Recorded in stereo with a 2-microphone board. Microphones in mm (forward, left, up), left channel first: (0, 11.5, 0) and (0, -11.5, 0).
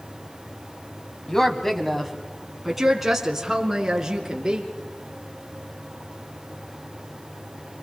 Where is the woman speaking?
20° left (ahead or behind), 2 m; by 4.6 s 25° right (ahead or behind), 4.5 m.